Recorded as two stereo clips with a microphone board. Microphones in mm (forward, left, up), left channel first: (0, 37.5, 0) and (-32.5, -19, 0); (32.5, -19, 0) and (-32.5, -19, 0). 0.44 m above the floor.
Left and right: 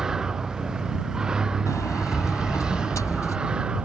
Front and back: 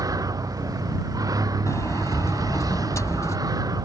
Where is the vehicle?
160° left; by 3.9 s 165° left.